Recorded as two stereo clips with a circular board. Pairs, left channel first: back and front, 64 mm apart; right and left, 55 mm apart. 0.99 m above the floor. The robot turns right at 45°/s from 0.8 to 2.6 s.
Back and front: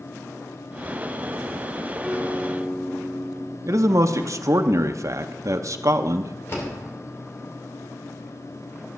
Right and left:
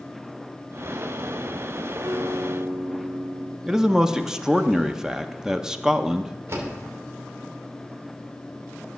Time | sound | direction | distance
2.0 | a guitar | 90° left | 2.0 m
3.6 | a man speaking | 15° left | 0.6 m
6.5 | a door slam | 130° left | 2.5 m